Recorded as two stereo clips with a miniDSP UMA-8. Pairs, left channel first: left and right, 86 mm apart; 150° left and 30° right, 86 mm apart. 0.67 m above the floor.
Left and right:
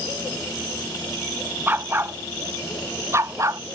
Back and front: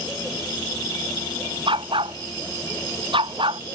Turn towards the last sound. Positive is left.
turn(degrees=-40)